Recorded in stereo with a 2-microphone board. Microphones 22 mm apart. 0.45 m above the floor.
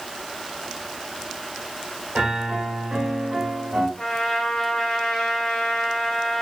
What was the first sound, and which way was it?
A piano, 65° right (ahead or behind).